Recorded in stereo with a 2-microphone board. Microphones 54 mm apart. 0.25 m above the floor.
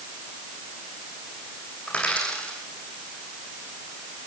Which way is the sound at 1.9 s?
20° left (ahead or behind).